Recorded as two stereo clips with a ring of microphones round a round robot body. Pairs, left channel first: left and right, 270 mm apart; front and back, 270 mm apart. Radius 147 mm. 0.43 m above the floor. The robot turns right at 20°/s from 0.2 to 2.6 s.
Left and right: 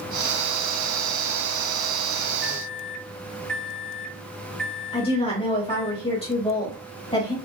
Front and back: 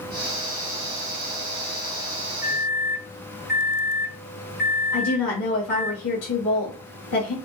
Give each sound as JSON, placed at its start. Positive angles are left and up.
{"t": 2.4, "sound": "a microwave", "azimuth_deg": 0, "distance_m": 0.6}
{"t": 4.9, "sound": "a woman speaking", "azimuth_deg": 20, "distance_m": 2.0}